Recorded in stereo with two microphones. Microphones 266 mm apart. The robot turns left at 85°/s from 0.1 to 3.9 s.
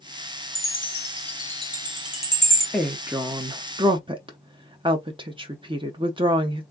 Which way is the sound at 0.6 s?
55° left (ahead or behind).